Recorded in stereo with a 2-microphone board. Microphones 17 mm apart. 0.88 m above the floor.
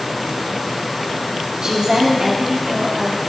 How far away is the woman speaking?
About 2 m.